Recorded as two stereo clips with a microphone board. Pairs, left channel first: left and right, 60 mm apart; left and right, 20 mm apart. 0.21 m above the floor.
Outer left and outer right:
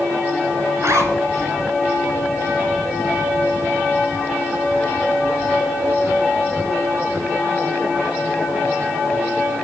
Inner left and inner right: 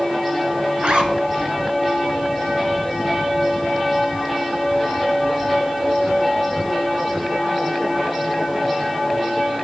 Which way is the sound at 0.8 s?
60° right (ahead or behind).